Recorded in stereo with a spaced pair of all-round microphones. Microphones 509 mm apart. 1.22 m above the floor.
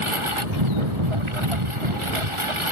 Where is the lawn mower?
70° right (ahead or behind).